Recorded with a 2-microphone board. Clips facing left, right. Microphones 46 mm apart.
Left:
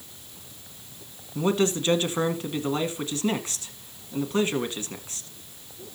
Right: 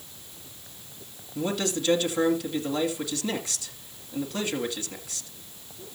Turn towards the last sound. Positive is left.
turn(degrees=35)  # may be behind; listen again after turning